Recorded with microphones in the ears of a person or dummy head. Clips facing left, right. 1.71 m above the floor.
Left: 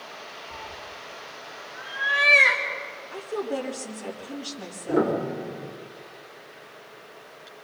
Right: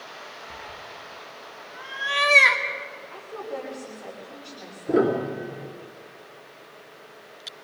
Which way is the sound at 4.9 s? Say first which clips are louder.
Right 2 dB; 35° right (ahead or behind).